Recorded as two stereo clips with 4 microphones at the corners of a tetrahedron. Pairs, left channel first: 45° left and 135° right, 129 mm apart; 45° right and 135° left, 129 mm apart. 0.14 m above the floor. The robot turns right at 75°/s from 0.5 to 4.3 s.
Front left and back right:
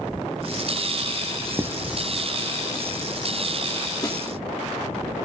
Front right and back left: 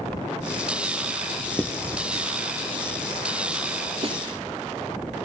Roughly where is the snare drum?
Left.